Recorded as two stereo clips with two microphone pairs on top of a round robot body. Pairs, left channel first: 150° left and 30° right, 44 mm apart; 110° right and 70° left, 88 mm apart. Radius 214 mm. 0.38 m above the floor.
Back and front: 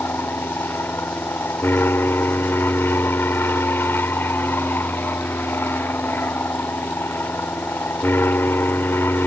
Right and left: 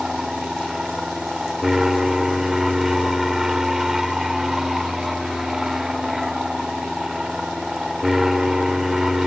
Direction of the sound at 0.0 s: 155° left.